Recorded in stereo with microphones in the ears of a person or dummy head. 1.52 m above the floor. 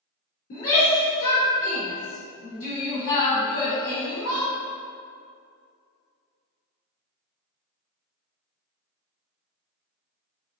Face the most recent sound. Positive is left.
turn(degrees=75)  # may be behind; listen again after turning